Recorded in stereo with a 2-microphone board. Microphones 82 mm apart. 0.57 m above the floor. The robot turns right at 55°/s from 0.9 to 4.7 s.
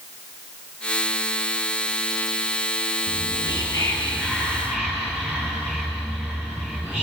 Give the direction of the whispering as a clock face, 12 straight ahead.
9 o'clock.